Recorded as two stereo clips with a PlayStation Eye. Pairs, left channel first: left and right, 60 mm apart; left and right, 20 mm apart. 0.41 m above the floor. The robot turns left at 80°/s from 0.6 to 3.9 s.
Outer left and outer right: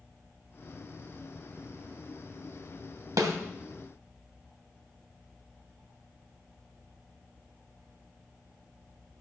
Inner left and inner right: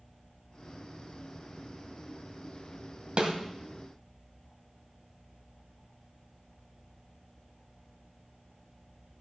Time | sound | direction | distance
3.2 | a snare drum | 70° right (ahead or behind) | 1.6 m